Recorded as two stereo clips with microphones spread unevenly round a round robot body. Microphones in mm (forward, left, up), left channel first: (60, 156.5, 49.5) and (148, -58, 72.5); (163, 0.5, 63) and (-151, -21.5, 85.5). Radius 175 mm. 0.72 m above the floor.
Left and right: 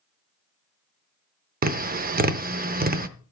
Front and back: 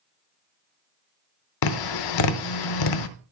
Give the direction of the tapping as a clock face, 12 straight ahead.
12 o'clock.